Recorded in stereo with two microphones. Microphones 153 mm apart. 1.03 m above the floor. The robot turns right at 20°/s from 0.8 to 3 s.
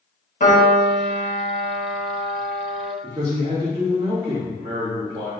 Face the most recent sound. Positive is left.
turn(degrees=-30)  # may be behind; listen again after turning